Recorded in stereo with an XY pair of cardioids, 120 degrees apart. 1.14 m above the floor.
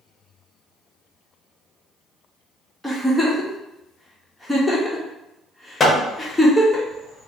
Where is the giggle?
5° left, 1.1 m.